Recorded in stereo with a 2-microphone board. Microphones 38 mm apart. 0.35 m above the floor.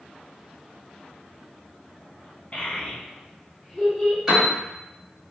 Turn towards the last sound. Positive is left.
turn(degrees=-15)  # may be behind; listen again after turning